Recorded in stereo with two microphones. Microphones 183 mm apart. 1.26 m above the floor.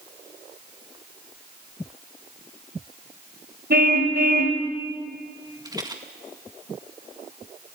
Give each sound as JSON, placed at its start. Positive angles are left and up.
{"t": 3.7, "sound": "a car horn", "side_deg": -65, "distance_m": 2.5}
{"t": 5.7, "sound": "a rattle", "side_deg": -20, "distance_m": 1.8}